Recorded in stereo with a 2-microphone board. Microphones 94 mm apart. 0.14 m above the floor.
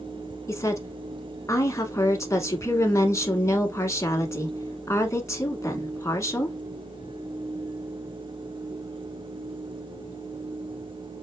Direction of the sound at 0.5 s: 30° left (ahead or behind).